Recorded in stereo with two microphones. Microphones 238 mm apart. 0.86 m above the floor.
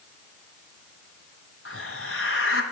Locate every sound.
1.6 s a hiss: 60° left (ahead or behind), 1.5 m